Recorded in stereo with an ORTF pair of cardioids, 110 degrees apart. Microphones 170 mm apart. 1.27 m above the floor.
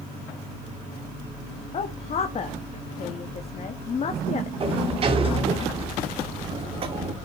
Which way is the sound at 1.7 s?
40° left.